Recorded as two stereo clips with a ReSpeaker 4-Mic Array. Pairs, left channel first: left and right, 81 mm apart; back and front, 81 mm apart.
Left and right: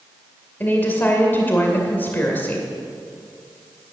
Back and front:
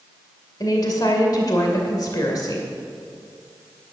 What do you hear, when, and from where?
0.6 s a woman speaking: 150° left, 2 m